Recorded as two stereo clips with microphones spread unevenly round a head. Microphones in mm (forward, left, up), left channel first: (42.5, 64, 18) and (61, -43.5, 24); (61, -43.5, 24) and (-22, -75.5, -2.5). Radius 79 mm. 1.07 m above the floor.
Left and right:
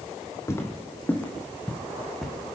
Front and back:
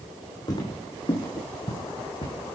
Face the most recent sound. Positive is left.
turn(degrees=10)